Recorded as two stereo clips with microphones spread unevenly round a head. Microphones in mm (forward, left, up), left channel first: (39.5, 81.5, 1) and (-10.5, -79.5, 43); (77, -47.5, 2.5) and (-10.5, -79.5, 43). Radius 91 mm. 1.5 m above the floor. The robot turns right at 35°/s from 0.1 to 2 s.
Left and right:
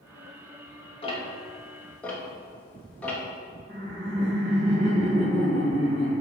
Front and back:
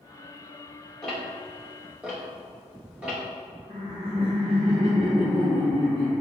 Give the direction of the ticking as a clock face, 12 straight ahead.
7 o'clock.